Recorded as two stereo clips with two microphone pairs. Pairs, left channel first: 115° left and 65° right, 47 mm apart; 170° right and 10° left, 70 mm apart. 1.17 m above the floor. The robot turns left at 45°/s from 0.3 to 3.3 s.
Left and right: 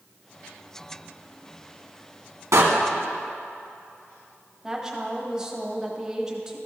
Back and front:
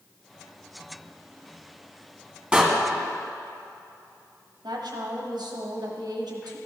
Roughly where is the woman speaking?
Ahead.